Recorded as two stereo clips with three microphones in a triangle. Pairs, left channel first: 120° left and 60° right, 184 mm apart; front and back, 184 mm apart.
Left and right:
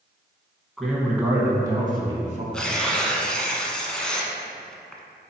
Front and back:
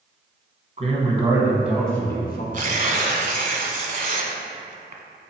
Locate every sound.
0.8 s a man speaking: 150° right, 1.6 m; by 2.4 s 35° right, 1.3 m
2.5 s tearing paper: 155° right, 0.8 m